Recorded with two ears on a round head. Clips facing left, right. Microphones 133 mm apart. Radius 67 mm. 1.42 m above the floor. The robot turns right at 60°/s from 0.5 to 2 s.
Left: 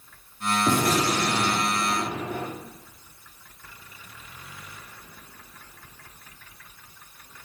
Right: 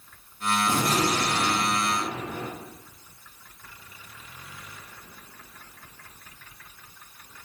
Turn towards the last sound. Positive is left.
turn(degrees=125)